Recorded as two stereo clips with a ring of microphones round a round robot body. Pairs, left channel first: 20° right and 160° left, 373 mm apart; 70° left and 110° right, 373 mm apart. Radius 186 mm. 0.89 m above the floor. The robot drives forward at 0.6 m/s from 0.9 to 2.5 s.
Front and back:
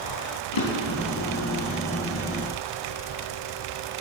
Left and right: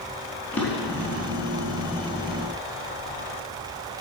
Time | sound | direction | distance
0.5 | a drawer | 20° right | 3.5 m